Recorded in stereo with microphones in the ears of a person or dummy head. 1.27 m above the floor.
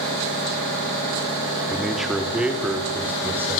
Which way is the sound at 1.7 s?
5° left (ahead or behind).